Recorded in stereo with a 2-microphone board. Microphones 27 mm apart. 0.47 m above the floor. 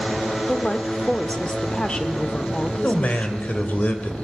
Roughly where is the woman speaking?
Left.